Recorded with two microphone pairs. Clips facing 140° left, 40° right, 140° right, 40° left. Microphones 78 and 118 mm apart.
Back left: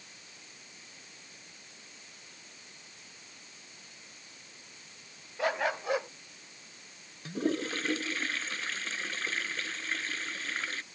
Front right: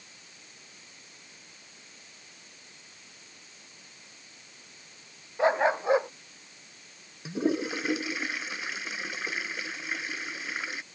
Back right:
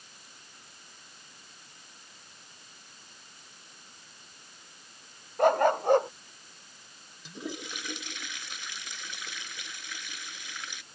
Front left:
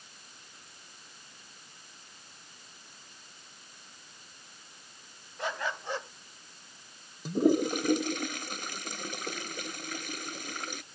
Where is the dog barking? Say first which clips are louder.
Front right 7 dB, back right 13 dB; 105° right.